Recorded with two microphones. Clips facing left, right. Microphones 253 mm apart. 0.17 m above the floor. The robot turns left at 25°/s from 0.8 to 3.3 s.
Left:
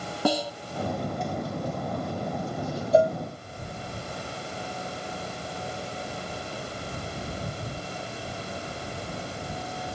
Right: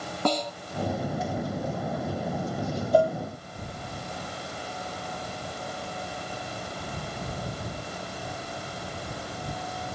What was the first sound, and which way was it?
A snare drum, 10° left (ahead or behind).